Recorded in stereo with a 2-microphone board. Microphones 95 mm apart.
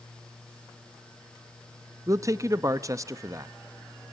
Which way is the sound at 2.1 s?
35° right (ahead or behind).